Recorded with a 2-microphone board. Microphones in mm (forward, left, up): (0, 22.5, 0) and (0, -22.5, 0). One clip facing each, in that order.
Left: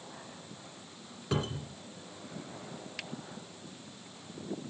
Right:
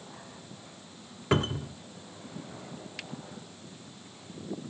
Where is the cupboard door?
40° right (ahead or behind), 1.7 m.